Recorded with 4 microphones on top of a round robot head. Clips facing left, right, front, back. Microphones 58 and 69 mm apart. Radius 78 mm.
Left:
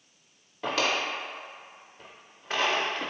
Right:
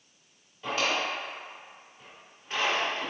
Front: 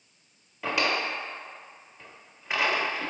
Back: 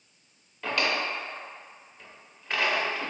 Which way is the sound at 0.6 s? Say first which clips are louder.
Left 1 dB, front 1 dB; 80° left.